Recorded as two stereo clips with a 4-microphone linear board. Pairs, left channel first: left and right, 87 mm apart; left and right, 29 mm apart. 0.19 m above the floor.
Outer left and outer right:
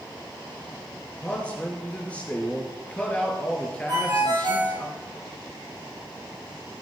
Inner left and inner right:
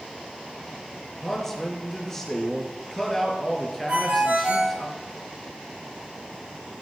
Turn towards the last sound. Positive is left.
turn(degrees=-60)  # may be behind; listen again after turning